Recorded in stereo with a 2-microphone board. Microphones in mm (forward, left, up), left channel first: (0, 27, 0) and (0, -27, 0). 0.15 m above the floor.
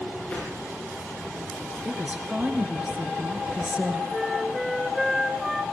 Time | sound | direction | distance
0.3 | a whoosh | 20° left (ahead or behind) | 9.5 m
1.9 | a woman speaking | 25° right (ahead or behind) | 2.5 m
4.1 | a flute | 5° right (ahead or behind) | 1.2 m